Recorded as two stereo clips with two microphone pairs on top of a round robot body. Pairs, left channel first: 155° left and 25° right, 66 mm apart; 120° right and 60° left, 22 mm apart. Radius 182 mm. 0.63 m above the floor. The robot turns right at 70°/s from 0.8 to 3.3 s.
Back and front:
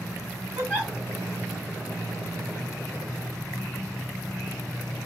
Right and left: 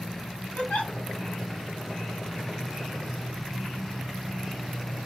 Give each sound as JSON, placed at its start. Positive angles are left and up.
{"t": 0.6, "sound": "a giggle", "azimuth_deg": -95, "distance_m": 2.5}